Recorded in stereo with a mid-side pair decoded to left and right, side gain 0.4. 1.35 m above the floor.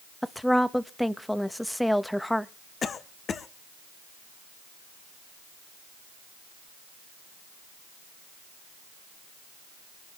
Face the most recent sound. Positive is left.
turn(degrees=55)